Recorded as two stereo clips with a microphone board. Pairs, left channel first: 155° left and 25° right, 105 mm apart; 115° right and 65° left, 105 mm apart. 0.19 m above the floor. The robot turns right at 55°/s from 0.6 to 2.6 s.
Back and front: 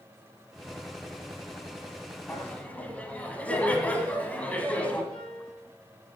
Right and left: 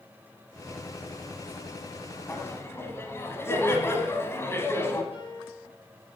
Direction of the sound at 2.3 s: 160° right.